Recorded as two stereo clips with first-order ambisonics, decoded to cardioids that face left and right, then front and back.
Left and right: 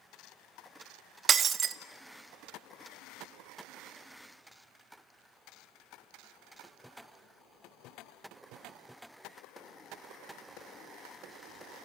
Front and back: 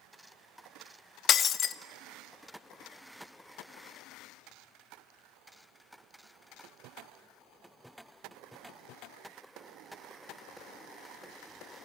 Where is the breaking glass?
40° right, 0.7 m.